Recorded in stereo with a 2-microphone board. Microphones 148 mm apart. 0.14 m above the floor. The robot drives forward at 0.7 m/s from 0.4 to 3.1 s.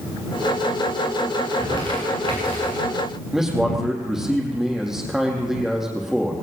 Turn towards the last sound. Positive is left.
turn(degrees=-5)  # may be behind; listen again after turning